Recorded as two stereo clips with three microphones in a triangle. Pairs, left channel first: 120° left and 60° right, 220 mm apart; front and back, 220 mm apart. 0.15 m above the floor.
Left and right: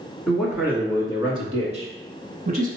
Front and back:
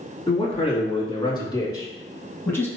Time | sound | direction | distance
0.3 | a man speaking | 30° left | 1.2 m